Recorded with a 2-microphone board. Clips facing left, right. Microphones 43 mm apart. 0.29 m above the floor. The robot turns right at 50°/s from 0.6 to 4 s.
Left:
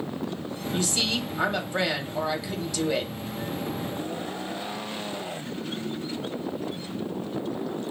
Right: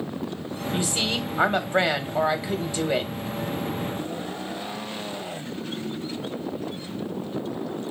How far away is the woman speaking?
About 1.1 m.